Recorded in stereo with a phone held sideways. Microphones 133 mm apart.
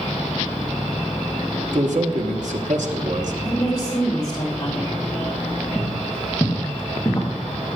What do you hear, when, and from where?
1.7 s a man speaking: 70° right (ahead or behind), 1.5 m
3.4 s a woman speaking: 30° left (ahead or behind), 4.5 m
5.8 s footsteps: 10° left (ahead or behind), 3.5 m; by 7.3 s 25° left (ahead or behind), 3 m